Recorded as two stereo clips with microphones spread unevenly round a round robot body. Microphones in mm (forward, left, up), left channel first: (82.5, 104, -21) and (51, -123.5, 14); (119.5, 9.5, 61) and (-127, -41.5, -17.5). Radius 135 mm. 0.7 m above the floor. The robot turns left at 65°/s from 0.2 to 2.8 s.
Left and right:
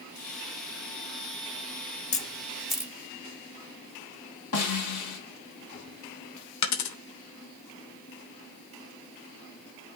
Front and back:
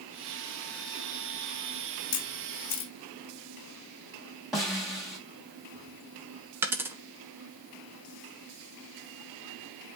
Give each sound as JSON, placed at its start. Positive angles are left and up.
{"t": 2.1, "sound": "a camera shutter", "azimuth_deg": 35, "distance_m": 1.8}
{"t": 4.5, "sound": "a snare drum", "azimuth_deg": 105, "distance_m": 3.0}
{"t": 6.6, "sound": "a dropped coin", "azimuth_deg": 110, "distance_m": 1.1}